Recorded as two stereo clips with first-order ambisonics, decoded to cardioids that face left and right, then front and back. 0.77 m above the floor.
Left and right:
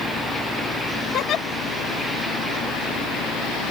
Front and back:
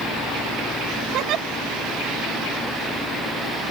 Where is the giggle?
140° left.